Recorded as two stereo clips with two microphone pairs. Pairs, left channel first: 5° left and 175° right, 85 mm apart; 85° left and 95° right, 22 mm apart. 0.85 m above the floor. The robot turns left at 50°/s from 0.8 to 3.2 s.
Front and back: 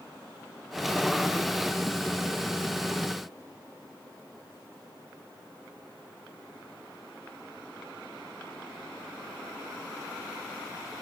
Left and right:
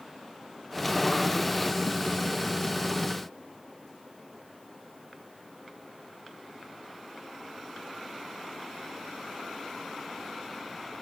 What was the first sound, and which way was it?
Only background noise.